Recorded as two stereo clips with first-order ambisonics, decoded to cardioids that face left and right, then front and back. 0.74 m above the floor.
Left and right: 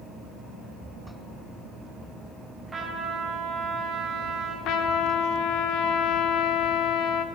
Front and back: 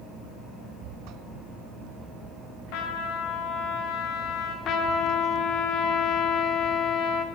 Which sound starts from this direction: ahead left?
A trumpet, at 4.7 s.